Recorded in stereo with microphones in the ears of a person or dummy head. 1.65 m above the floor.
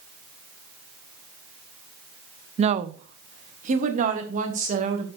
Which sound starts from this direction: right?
A woman speaking, at 2.6 s.